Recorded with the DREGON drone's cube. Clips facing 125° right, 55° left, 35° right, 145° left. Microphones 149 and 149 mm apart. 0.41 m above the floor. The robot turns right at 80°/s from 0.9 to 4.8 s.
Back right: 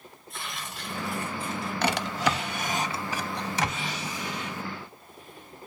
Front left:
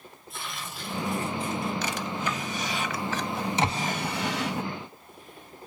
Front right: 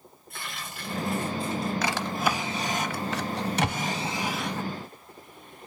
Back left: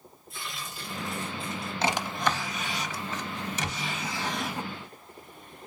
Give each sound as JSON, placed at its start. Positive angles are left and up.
{"t": 0.3, "sound": "tearing paper", "azimuth_deg": -30, "distance_m": 3.5}
{"t": 1.8, "sound": "a drawer", "azimuth_deg": -155, "distance_m": 0.5}
{"t": 3.6, "sound": "ticking", "azimuth_deg": -20, "distance_m": 1.9}